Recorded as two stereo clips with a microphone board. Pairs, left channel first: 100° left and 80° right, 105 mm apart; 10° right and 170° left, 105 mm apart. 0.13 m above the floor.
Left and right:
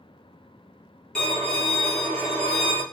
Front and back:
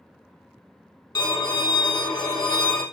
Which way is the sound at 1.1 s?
20° left.